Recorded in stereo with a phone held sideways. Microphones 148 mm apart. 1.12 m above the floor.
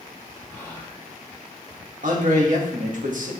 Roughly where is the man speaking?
Right.